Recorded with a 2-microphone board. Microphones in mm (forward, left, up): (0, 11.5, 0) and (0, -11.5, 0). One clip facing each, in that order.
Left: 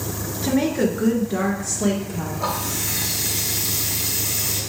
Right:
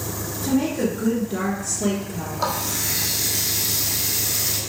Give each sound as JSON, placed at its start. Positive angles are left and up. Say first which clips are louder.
{"t": 0.4, "sound": "a woman speaking", "louder": "left 2 dB", "side_deg": 40, "distance_m": 1.6}
{"t": 2.4, "sound": "a running tap", "louder": "right 2 dB", "side_deg": -45, "distance_m": 3.0}